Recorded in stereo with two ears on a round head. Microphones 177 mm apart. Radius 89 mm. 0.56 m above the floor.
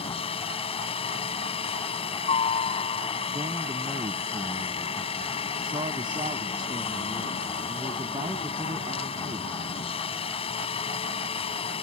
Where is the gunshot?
No gunshot in this recording.